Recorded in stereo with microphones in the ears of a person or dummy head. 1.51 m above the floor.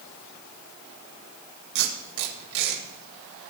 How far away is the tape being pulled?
About 2.5 m.